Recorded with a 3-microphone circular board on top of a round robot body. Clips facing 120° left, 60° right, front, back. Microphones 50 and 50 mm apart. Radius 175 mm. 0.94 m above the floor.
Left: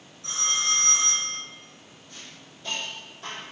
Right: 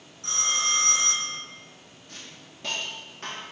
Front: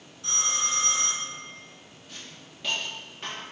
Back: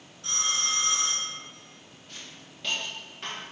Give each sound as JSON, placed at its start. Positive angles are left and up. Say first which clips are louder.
{"t": 0.2, "sound": "a phone ringing", "louder": "right 1 dB, even", "azimuth_deg": -90, "distance_m": 1.7}
{"t": 2.1, "sound": "a hiss", "louder": "right 1 dB, even", "azimuth_deg": -85, "distance_m": 1.2}